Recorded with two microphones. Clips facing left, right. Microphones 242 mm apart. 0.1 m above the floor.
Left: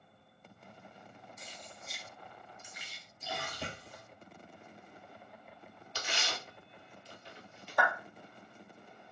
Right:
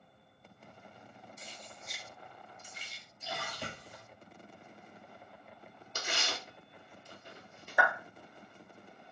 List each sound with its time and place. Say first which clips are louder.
1.4 s keys jangling: even; 35° right (ahead or behind), 1.1 m; by 3.0 s 25° left (ahead or behind), 1.2 m
3.2 s a splash: left 1 dB; 35° left (ahead or behind), 1.5 m
6.0 s tearing paper: right 1 dB; 50° right (ahead or behind), 0.9 m
7.8 s a clap: even; 5° right (ahead or behind), 0.9 m